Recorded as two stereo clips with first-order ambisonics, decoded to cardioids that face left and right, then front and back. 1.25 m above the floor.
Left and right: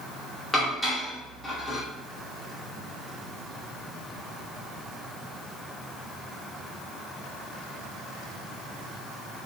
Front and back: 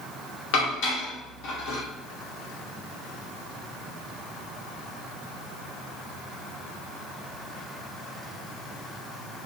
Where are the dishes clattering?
15° left, 1.2 m.